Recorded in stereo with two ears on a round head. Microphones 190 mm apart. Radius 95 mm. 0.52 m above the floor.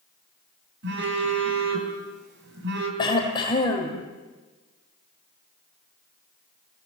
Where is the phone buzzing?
55° right (ahead or behind), 5 m.